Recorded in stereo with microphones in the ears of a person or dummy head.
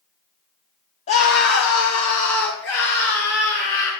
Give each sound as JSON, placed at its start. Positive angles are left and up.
{"t": 1.1, "sound": "a scream", "side_deg": 30, "distance_m": 0.7}